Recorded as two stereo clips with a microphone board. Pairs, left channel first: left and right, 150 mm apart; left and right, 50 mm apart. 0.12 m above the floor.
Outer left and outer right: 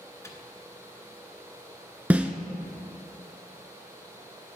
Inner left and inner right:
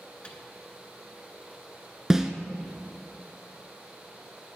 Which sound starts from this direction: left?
A microwave, at 0.2 s.